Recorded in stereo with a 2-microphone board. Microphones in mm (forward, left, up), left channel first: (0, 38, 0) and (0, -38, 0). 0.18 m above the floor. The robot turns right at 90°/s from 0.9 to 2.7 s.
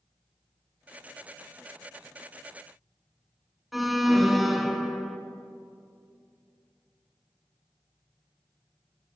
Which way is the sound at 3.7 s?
Centre (ahead or behind).